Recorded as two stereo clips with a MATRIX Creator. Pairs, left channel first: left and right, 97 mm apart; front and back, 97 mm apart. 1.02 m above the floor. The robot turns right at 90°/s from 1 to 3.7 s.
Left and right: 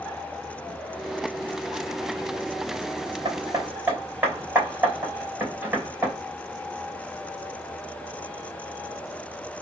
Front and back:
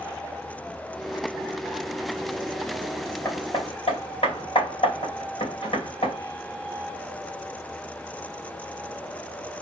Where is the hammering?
60° right, 3 m; by 6.2 s 20° right, 3 m.